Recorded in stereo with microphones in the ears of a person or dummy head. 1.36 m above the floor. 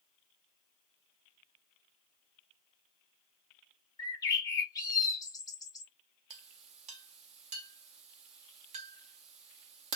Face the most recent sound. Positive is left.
turn(degrees=-40)  # may be behind; listen again after turning